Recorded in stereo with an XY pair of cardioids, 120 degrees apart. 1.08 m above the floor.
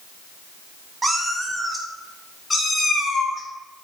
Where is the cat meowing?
20° right, 0.8 m; by 3.9 s 40° left, 1.8 m.